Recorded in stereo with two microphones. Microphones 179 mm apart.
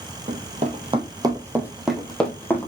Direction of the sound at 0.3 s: 45° right (ahead or behind).